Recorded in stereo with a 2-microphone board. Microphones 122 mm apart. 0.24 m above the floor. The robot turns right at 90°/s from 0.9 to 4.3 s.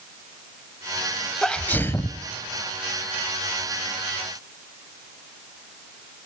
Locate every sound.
1.4 s a sneeze: 5° left (ahead or behind), 1.1 m; by 2.2 s 25° left (ahead or behind), 1.1 m